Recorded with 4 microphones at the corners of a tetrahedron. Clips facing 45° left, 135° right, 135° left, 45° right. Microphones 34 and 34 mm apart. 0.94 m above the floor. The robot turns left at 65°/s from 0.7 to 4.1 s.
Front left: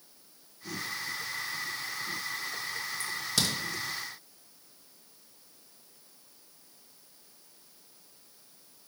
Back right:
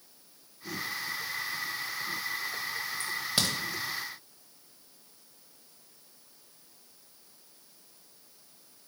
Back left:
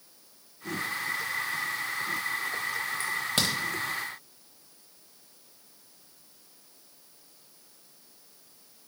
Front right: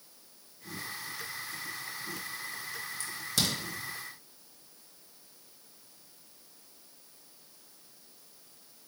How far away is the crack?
About 0.8 m.